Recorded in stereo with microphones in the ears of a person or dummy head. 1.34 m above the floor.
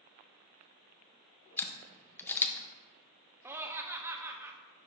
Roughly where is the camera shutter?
Centre.